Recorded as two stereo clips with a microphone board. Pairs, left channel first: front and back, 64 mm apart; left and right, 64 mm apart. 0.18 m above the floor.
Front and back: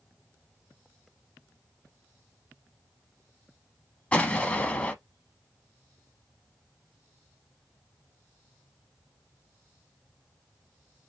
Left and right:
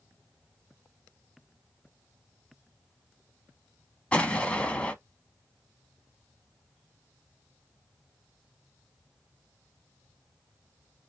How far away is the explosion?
About 0.7 m.